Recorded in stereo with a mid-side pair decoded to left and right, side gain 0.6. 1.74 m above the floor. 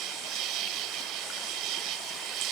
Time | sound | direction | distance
0.0 | an insect | 65° right | ?